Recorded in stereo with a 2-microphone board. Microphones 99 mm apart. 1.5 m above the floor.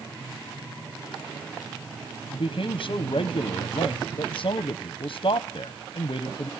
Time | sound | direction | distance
2.3 | a man speaking | 60° left (ahead or behind) | 0.6 m